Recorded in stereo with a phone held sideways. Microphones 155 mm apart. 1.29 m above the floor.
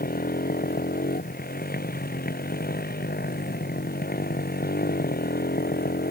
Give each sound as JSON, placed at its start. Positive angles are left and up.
{"t": 0.0, "sound": "a motorcycle", "side_deg": 75}